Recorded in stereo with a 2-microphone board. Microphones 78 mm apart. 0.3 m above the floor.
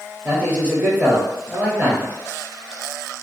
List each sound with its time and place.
0.2 s a man speaking: 20° right (ahead or behind), 0.9 m